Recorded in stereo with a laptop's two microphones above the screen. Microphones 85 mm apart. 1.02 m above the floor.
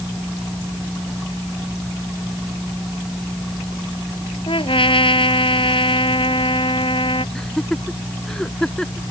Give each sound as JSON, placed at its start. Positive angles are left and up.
{"t": 4.5, "sound": "a trumpet", "side_deg": 85}
{"t": 7.3, "sound": "laughter", "side_deg": 10}